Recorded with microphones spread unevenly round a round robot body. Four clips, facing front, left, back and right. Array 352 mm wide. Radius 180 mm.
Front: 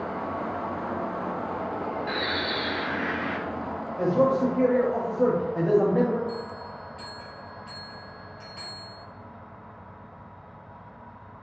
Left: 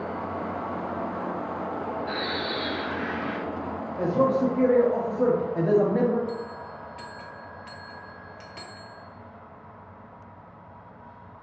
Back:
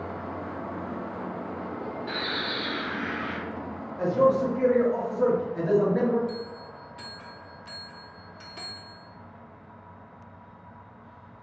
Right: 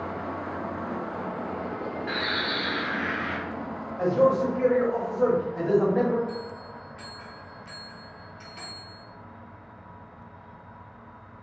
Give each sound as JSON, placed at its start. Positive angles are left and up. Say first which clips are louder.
{"t": 2.1, "sound": "a bird", "louder": "even, front 3 dB", "azimuth_deg": -65, "distance_m": 1.0}
{"t": 4.0, "sound": "a man speaking", "louder": "right 1 dB, even", "azimuth_deg": 75, "distance_m": 1.1}
{"t": 6.3, "sound": "a bell", "louder": "left 2 dB, front 2 dB", "azimuth_deg": 130, "distance_m": 0.8}